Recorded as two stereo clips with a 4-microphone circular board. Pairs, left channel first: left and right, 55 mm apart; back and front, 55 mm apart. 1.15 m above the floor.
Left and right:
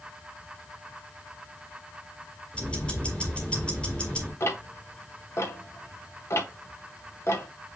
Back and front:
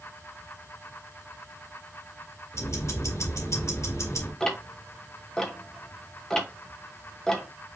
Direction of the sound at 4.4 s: 105° left.